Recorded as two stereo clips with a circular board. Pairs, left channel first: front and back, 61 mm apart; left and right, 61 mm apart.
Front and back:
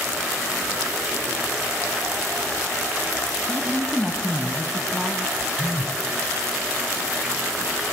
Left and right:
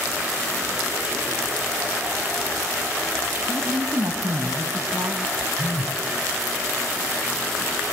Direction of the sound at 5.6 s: 105° left.